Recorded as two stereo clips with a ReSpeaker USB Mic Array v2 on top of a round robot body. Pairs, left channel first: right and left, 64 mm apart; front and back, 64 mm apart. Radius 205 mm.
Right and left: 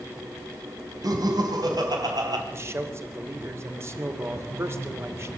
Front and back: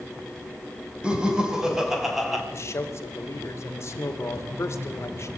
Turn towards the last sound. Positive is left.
turn(degrees=40)